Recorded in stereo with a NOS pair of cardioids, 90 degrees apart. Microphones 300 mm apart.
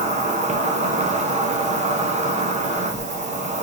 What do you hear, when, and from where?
0.0 s an insect: 25° right, 0.9 m